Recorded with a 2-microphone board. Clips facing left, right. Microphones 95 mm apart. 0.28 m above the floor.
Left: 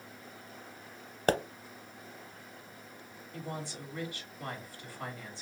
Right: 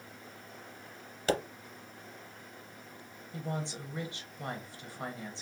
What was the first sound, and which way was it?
A pop, 45° left (ahead or behind).